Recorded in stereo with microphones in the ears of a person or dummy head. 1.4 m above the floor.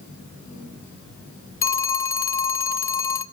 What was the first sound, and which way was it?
A phone ringing, 15° left (ahead or behind).